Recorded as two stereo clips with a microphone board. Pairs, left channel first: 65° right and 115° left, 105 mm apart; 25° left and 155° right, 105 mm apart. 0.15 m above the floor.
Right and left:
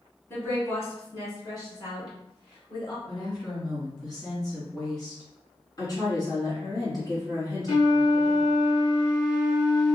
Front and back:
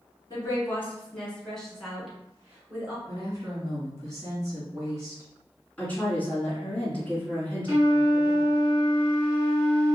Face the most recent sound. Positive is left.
turn(degrees=-95)